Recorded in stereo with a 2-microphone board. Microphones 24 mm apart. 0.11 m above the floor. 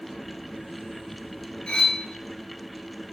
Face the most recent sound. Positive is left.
turn(degrees=35)  # may be behind; listen again after turning